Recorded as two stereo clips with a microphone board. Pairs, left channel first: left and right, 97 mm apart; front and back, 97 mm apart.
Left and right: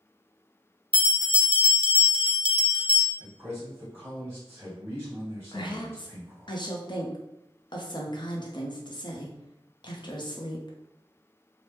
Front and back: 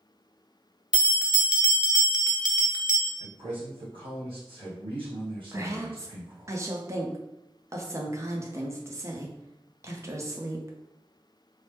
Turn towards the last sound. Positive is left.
turn(degrees=120)